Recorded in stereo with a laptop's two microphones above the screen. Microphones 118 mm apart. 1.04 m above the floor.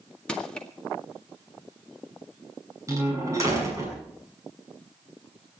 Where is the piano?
No piano in this recording.